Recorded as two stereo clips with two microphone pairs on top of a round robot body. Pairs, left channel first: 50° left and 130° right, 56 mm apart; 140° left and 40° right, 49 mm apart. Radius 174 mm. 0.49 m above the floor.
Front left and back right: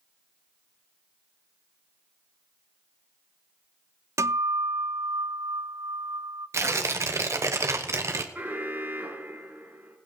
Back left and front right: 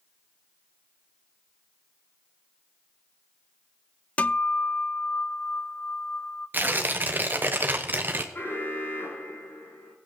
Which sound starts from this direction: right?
Tearing paper, at 6.5 s.